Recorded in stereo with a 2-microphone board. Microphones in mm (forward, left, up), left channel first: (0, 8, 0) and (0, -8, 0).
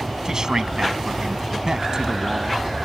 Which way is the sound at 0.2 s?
45° right (ahead or behind).